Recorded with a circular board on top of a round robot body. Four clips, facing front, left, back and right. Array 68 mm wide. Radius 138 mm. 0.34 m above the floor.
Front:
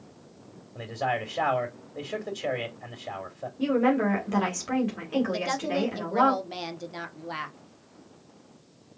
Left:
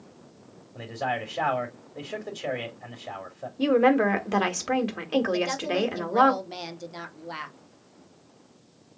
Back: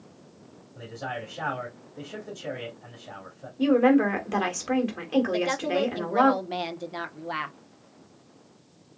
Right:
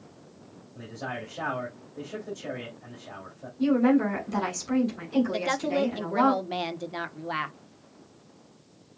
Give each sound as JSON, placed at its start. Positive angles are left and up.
{"t": 0.8, "sound": "a man speaking", "azimuth_deg": 45, "distance_m": 3.0}
{"t": 3.6, "sound": "a woman speaking", "azimuth_deg": 105, "distance_m": 2.5}
{"t": 5.3, "sound": "a woman speaking", "azimuth_deg": -120, "distance_m": 1.4}